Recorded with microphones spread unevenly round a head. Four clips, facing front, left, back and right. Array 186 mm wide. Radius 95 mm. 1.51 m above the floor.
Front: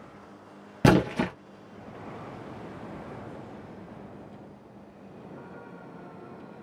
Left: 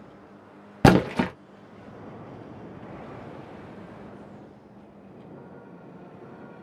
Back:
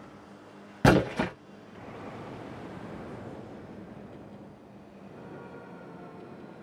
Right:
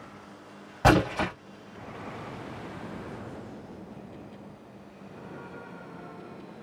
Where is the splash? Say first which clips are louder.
Left 3 dB, front 1 dB; 100° left, 0.7 m.